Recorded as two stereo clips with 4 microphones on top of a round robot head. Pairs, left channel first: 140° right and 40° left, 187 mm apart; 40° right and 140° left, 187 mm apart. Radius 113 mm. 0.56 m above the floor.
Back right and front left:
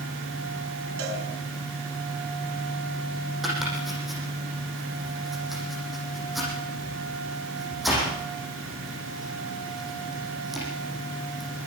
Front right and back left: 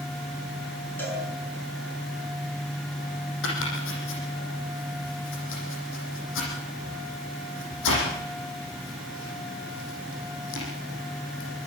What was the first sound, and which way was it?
A cowbell, 40° left.